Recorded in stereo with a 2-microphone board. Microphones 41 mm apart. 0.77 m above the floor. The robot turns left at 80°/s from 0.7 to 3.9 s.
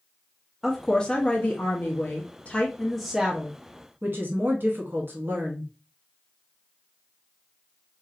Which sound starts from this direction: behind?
A woman speaking, at 0.6 s.